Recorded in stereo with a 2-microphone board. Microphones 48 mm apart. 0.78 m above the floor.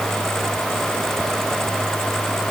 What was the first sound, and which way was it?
Only background noise.